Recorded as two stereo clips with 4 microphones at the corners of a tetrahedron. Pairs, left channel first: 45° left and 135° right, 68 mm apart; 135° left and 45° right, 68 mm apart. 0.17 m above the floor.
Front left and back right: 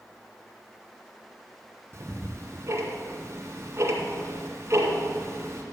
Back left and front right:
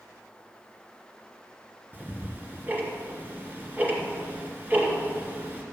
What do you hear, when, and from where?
1.9 s ticking: 100° right, 2.5 m